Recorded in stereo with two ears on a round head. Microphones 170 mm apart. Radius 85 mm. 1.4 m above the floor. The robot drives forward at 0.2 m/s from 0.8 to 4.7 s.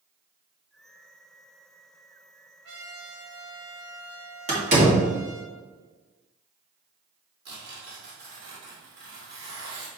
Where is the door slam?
40° right (ahead or behind), 2.5 m.